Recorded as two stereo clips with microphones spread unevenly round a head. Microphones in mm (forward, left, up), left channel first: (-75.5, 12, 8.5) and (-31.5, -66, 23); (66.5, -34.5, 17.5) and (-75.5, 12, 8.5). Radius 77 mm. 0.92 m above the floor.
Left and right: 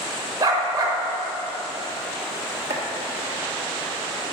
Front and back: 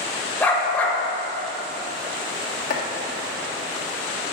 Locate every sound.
0.4 s a dog barking: 95° right, 1.1 m
2.7 s chopping: 50° right, 1.5 m